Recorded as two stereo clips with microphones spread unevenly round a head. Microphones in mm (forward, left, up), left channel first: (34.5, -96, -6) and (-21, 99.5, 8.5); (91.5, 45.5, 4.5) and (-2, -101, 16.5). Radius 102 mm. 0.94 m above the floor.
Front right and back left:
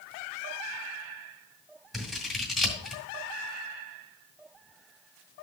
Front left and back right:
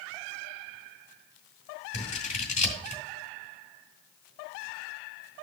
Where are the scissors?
15° left, 2 m.